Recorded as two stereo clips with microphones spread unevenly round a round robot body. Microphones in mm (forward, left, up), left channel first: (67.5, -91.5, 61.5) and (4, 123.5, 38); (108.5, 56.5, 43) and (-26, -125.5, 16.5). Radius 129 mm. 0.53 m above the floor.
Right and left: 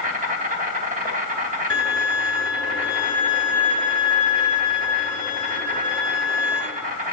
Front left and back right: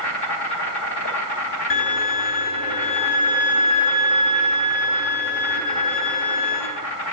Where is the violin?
20° left, 2.5 m.